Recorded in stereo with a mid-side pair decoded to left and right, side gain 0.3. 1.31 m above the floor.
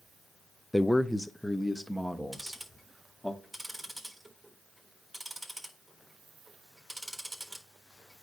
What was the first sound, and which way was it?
A man speaking, 10° left.